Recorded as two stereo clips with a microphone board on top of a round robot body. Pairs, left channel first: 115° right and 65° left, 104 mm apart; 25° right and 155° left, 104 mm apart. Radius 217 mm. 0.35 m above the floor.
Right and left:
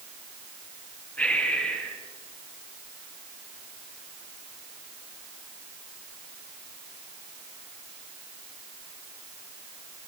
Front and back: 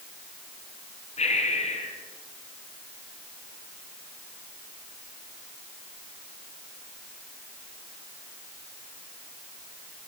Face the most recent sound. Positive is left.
turn(degrees=-35)